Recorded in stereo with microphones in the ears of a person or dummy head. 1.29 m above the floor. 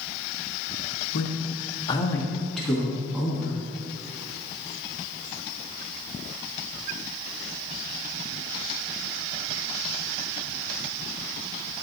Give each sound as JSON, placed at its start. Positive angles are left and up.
{"t": 1.1, "sound": "a man speaking", "side_deg": 60, "distance_m": 0.9}